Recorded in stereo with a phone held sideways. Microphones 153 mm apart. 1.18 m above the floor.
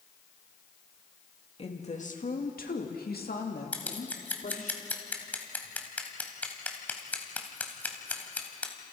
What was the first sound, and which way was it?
A woman speaking, 40° left (ahead or behind).